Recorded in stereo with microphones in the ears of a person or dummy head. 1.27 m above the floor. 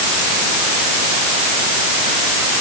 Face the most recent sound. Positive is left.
No sound to turn to.